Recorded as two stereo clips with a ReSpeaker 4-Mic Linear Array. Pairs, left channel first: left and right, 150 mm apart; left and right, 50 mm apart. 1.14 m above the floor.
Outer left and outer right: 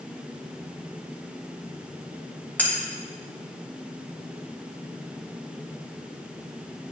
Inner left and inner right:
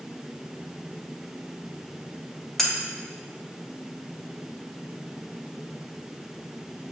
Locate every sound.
2.6 s cutlery clinking: 10° left (ahead or behind), 1.2 m